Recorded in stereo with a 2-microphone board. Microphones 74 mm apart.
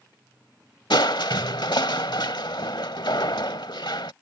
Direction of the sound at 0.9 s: 85° left.